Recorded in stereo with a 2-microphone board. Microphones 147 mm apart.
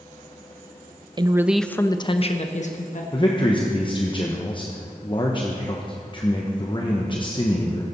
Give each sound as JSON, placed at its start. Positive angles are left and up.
{"t": 1.2, "sound": "a woman speaking", "side_deg": -30, "distance_m": 0.6}
{"t": 3.1, "sound": "a man speaking", "side_deg": 35, "distance_m": 0.9}